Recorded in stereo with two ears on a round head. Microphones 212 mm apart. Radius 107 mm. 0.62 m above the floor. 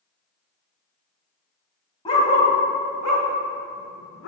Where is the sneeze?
I don't hear a sneeze.